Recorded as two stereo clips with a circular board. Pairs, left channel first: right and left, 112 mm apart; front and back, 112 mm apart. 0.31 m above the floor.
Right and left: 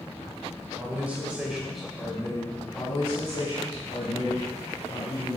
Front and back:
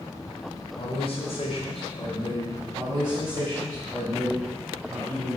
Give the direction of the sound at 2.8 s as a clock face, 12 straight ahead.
4 o'clock.